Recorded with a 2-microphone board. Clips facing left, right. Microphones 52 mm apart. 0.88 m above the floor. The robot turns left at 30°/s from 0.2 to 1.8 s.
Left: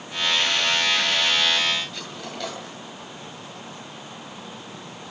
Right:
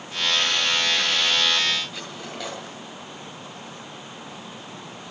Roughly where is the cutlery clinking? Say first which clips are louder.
Even; centre.